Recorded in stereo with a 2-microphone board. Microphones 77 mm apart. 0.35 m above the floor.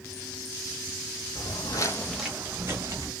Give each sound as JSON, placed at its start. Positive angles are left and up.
{"t": 1.4, "sound": "footsteps", "side_deg": 70, "distance_m": 0.9}